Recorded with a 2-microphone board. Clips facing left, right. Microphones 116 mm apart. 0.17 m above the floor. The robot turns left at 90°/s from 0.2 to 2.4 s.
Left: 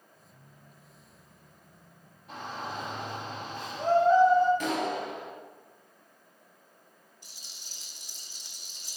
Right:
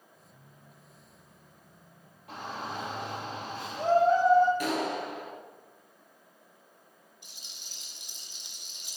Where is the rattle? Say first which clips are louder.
Even; 20° right (ahead or behind), 1.6 m.